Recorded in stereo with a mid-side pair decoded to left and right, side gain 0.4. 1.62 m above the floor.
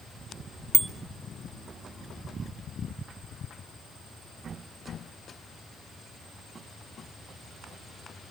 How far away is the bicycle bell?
About 2.5 m.